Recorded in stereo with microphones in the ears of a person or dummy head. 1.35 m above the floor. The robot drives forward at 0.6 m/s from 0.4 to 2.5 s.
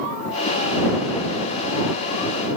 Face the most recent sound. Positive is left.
No sound to turn to.